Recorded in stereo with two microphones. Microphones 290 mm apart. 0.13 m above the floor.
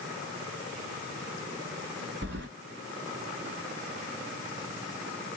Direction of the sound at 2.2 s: 40° right (ahead or behind).